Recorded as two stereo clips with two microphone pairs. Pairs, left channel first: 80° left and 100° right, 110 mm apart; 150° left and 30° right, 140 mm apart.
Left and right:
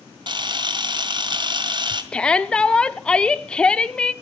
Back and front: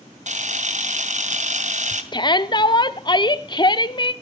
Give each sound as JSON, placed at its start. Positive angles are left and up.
{"t": 0.3, "sound": "a camera shutter", "azimuth_deg": -50, "distance_m": 2.0}
{"t": 2.1, "sound": "a shout", "azimuth_deg": 155, "distance_m": 0.9}